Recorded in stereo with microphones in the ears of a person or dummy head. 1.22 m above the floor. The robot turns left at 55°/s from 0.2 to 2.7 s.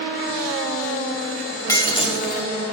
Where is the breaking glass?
155° left, 1.2 m; by 2.5 s 115° left, 1.2 m.